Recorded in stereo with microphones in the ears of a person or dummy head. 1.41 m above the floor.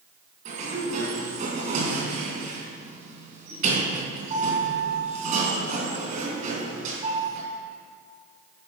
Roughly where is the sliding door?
Right.